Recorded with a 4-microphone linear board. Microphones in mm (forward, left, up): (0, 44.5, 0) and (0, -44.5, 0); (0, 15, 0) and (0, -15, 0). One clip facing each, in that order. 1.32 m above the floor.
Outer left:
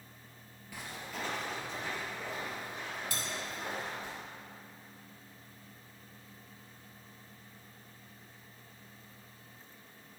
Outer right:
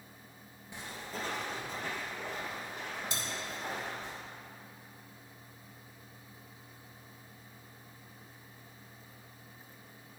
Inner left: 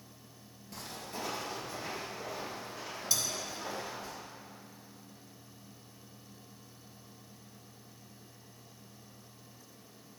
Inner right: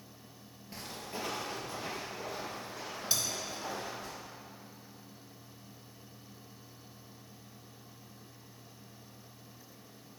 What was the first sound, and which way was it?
Footsteps, 25° right (ahead or behind).